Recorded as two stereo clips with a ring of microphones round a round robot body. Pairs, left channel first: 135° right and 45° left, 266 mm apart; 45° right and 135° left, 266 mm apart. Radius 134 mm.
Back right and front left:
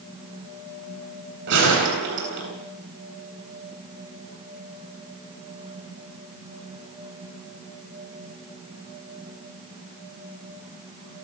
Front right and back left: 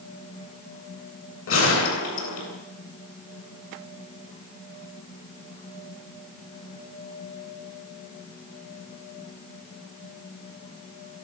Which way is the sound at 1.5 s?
5° right.